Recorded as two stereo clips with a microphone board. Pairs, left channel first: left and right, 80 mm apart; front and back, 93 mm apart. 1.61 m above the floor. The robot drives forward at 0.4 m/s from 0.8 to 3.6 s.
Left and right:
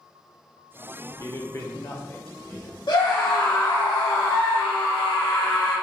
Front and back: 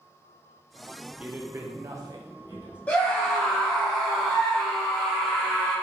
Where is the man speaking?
110° left, 0.6 m; by 2.8 s 155° left, 1.0 m.